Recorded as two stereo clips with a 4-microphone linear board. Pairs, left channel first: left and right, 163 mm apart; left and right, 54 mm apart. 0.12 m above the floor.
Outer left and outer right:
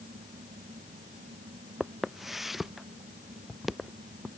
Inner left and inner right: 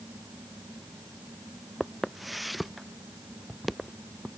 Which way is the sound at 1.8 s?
Centre (ahead or behind).